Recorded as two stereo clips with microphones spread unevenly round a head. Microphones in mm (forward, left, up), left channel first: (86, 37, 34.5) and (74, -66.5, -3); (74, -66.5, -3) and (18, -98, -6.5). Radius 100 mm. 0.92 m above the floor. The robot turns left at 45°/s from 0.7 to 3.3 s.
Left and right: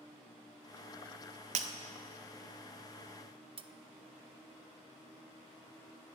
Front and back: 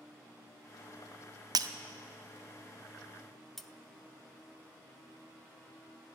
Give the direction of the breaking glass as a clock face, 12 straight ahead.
4 o'clock.